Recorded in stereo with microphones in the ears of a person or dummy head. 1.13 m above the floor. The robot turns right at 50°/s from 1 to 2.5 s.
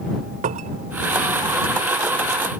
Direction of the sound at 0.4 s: 45° right (ahead or behind).